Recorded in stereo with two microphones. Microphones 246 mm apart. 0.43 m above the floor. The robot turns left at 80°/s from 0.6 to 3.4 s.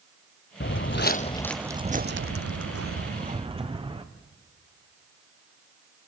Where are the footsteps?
45° left (ahead or behind), 0.5 m; by 4.0 s 20° right (ahead or behind), 2 m.